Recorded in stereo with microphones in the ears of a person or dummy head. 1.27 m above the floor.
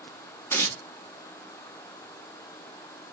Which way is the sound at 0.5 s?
15° left (ahead or behind).